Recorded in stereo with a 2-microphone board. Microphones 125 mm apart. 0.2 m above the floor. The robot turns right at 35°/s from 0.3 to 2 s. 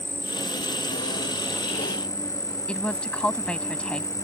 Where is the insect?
90° left; by 4.2 s 150° left.